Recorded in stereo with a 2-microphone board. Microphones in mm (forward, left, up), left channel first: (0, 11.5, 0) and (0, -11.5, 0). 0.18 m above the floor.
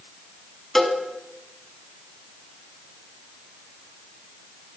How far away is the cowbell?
About 0.9 m.